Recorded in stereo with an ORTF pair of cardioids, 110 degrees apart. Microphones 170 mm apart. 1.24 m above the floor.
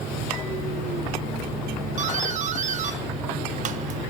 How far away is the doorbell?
About 1.3 m.